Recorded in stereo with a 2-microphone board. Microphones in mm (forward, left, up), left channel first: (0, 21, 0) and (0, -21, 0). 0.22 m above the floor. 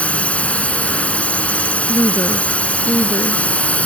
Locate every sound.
0.0 s a drone: 30° left (ahead or behind)
1.9 s a woman speaking: 65° left (ahead or behind)